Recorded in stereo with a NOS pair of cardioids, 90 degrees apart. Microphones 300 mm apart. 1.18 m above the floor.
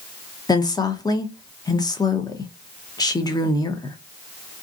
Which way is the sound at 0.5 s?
15° left.